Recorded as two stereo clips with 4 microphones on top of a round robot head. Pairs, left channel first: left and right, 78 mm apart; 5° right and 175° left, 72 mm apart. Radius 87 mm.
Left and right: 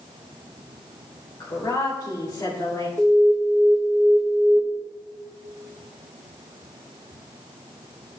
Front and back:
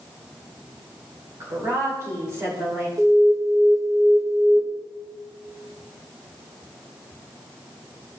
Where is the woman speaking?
130° left, 3 m.